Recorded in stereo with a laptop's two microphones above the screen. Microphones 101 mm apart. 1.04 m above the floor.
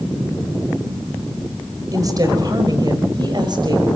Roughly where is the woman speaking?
Right.